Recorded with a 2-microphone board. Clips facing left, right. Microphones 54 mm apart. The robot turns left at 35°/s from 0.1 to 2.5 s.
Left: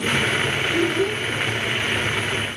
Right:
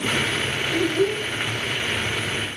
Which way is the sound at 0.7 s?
25° left (ahead or behind).